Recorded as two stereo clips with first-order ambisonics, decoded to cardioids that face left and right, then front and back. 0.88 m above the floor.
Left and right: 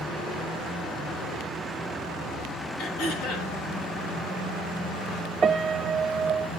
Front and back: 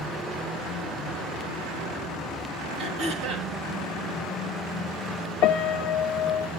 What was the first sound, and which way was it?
Throat clearing, 115° left.